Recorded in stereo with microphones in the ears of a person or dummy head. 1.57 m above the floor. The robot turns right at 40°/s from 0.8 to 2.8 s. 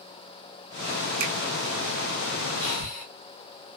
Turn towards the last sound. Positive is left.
turn(degrees=60)  # may be behind; listen again after turning